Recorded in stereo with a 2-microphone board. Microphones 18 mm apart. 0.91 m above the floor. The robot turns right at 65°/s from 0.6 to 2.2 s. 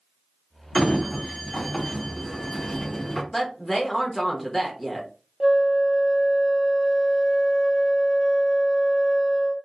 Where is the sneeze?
No sneeze in this recording.